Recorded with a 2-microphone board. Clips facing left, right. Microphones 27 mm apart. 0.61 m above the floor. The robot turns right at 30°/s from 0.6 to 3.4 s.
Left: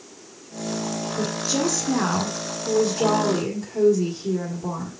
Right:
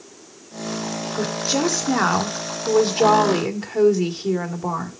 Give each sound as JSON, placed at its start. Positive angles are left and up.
{"t": 1.2, "sound": "a woman speaking", "azimuth_deg": -150, "distance_m": 2.0}